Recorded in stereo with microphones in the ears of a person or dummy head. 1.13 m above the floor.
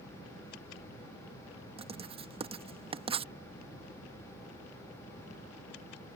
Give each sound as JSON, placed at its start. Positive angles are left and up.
{"t": 1.8, "sound": "writing", "side_deg": -30}